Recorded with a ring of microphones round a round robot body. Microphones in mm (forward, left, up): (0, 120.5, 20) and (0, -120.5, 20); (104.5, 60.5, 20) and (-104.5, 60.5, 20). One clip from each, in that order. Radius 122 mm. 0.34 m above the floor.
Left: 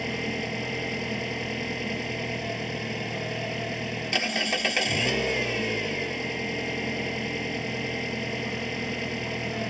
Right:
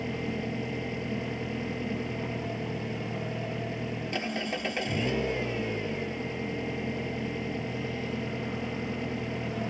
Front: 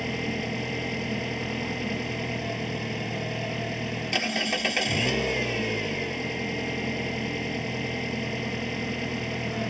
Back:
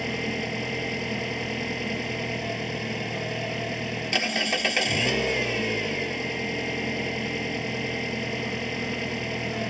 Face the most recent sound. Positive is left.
turn(degrees=125)